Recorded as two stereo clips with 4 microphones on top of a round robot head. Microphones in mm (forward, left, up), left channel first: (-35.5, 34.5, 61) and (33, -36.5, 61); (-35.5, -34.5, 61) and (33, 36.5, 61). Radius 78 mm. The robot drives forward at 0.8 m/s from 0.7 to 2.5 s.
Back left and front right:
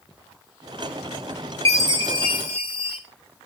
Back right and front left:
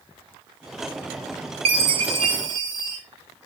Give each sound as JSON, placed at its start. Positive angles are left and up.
{"t": 1.6, "sound": "a chime", "azimuth_deg": 70, "distance_m": 1.5}